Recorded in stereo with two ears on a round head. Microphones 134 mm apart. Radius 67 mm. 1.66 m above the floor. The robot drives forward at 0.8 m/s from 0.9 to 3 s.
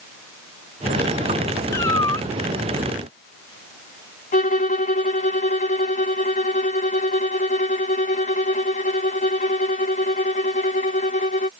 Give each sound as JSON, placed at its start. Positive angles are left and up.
{"t": 1.7, "sound": "a cat meowing", "side_deg": 20}
{"t": 4.3, "sound": "a violin", "side_deg": 55}